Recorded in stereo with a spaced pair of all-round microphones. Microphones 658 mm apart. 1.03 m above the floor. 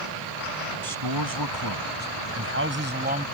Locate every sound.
0.8 s a man speaking: 35° right (ahead or behind); by 3.2 s 10° right (ahead or behind)